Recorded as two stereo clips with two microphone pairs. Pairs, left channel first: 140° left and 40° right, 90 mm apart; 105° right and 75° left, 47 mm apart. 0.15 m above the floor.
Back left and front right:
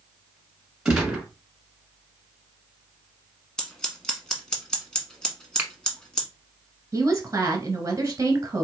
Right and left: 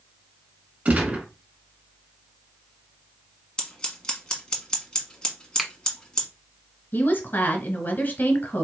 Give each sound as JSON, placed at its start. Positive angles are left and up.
{"t": 0.8, "sound": "a gunshot", "azimuth_deg": 40, "distance_m": 1.5}
{"t": 3.6, "sound": "scissors", "azimuth_deg": -150, "distance_m": 1.2}
{"t": 5.6, "sound": "a finger snap", "azimuth_deg": 0, "distance_m": 1.0}
{"t": 6.9, "sound": "a woman speaking", "azimuth_deg": -80, "distance_m": 1.6}